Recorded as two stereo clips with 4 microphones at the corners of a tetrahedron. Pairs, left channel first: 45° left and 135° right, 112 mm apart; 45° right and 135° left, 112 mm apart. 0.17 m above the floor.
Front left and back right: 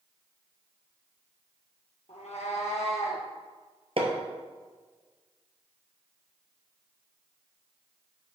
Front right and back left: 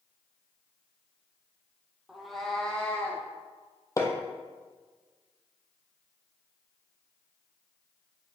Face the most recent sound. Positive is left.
turn(degrees=-105)